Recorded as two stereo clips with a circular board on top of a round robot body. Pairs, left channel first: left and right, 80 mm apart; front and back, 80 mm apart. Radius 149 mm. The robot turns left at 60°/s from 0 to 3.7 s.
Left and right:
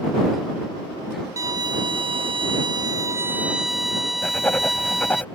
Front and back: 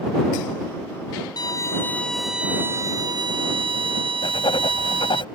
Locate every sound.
1.4 s a violin: 40° right; by 5.2 s straight behind
4.2 s writing: 20° left